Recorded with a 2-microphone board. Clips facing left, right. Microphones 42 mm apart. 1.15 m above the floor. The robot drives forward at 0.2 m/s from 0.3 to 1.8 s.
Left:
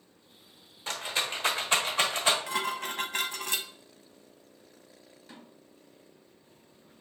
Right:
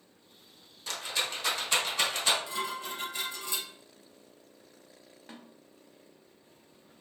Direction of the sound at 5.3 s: 45° right (ahead or behind).